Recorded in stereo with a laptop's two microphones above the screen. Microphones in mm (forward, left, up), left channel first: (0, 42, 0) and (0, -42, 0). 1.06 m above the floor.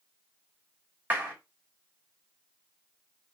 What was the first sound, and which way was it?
A clap, 25° right (ahead or behind).